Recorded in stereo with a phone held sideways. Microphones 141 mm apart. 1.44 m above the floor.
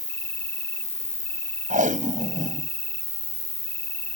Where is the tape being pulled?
70° right (ahead or behind).